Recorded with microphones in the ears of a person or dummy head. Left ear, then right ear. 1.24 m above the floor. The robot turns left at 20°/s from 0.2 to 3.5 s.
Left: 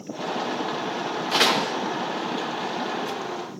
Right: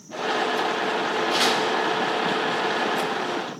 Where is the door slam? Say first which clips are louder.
Left 3 dB; 15° left (ahead or behind), 1.0 m; by 1.7 s 25° left (ahead or behind), 1.0 m.